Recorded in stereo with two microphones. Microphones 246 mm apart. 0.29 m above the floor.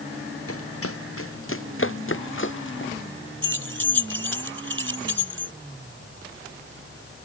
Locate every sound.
0.5 s running footsteps: 65° left (ahead or behind); by 2.9 s 50° left (ahead or behind)
3.4 s keys jangling: 55° right (ahead or behind)